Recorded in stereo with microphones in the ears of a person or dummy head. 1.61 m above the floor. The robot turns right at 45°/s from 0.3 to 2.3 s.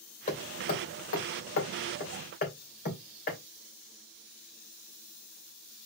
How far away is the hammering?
About 2.5 m.